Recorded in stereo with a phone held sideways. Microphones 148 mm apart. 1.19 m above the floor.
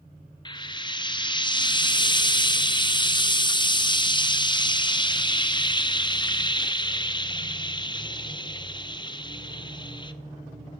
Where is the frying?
30° left (ahead or behind), 0.5 m.